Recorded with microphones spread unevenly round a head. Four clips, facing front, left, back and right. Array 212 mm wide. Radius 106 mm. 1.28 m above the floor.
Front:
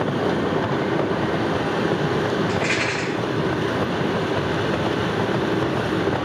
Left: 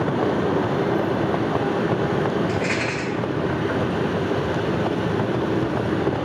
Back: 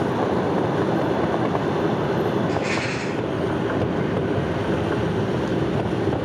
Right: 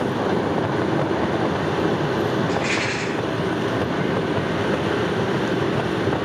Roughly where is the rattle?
Ahead.